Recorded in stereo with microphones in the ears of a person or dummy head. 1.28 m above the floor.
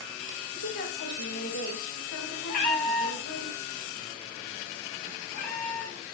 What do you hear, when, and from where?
0.5 s a woman speaking: 85° left, 5 m
2.5 s a cat meowing: 45° left (ahead or behind), 1.2 m